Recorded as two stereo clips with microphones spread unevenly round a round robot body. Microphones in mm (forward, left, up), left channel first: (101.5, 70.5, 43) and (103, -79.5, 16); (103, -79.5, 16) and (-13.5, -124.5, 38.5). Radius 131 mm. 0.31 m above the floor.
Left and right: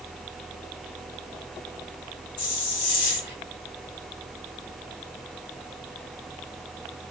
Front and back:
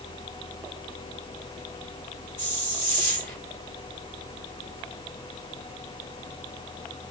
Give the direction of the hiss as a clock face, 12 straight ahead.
9 o'clock.